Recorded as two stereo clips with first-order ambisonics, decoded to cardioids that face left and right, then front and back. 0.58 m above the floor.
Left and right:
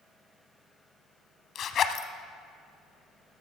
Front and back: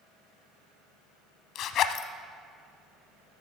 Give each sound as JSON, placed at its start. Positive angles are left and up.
{"t": 1.6, "sound": "a zipper", "azimuth_deg": 40, "distance_m": 0.7}